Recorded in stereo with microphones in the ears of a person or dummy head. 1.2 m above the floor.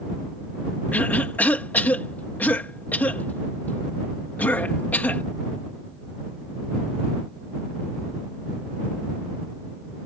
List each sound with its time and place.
0.9 s a cough: 10° left (ahead or behind)